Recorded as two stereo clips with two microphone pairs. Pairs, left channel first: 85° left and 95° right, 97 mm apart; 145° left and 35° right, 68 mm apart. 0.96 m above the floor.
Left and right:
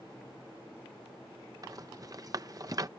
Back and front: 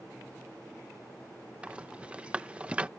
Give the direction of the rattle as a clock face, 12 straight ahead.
3 o'clock.